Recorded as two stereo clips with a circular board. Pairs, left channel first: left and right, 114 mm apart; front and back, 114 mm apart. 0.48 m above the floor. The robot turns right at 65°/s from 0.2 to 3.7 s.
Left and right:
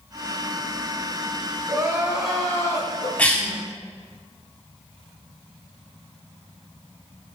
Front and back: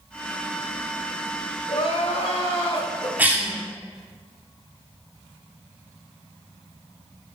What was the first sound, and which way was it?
Crying, 40° right.